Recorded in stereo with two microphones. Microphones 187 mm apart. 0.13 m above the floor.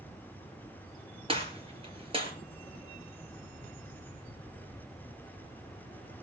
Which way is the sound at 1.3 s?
30° right (ahead or behind).